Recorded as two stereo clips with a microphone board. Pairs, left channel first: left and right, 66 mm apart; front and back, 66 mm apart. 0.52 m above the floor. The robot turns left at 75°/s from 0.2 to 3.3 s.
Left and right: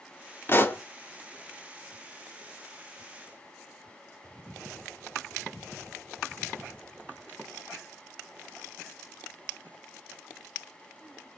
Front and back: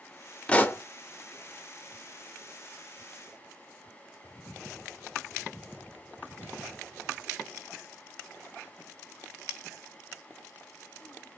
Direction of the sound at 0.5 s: 65° left.